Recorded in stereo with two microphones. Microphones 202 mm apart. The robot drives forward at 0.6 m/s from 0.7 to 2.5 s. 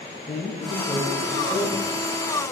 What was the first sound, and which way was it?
A man speaking, 30° left (ahead or behind).